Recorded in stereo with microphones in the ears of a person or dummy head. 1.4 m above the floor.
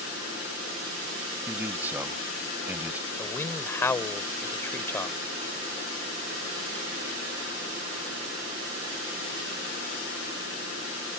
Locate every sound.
1.5 s a man speaking: 10° right (ahead or behind)
3.2 s a man speaking: 15° left (ahead or behind)